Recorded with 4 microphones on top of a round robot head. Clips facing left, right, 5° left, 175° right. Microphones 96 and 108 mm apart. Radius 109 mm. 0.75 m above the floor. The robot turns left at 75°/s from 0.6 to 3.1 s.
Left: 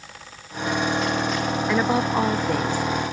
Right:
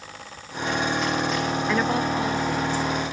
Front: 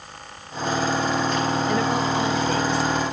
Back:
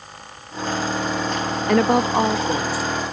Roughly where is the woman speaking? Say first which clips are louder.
Left 3 dB, back 5 dB; behind.